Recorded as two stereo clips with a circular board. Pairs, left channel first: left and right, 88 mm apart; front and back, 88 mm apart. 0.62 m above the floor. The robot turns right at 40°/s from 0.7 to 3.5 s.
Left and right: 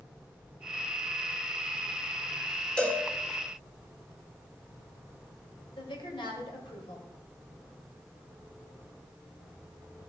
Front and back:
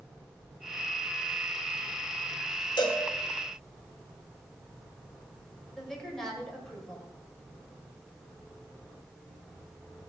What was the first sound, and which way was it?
A cowbell, 15° left.